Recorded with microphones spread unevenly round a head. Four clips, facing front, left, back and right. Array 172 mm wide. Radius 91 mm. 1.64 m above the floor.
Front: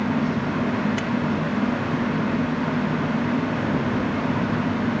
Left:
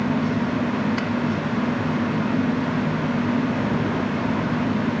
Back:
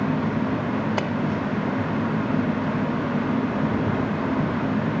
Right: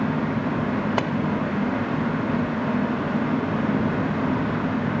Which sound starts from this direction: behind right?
A splash, at 1.0 s.